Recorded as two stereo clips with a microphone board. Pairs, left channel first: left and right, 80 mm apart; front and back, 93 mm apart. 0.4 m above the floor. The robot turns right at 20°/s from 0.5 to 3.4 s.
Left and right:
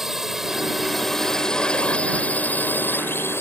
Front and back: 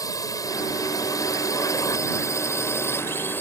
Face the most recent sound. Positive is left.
turn(degrees=50)